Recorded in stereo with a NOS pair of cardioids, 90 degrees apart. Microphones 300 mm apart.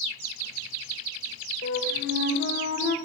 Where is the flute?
50° left, 0.9 m.